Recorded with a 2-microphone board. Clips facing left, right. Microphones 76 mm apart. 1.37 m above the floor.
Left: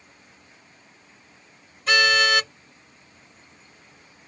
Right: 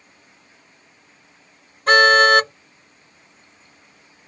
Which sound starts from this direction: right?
A car horn, at 1.9 s.